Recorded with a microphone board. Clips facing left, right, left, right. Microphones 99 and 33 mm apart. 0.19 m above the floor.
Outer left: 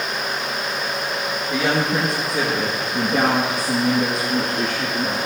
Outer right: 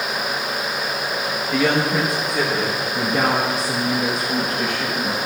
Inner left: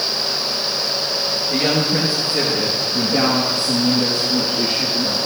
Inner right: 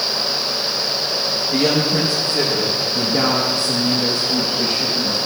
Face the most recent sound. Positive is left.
turn(degrees=75)  # may be behind; listen again after turning